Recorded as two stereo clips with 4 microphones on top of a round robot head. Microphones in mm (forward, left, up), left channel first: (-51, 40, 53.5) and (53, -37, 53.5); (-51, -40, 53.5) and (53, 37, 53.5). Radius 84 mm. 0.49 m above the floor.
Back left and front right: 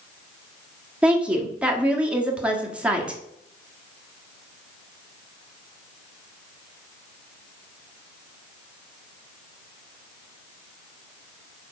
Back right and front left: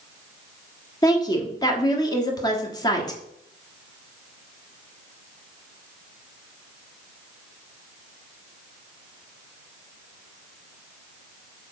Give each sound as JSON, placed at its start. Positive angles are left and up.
{"t": 1.0, "sound": "a woman speaking", "azimuth_deg": -110, "distance_m": 1.3}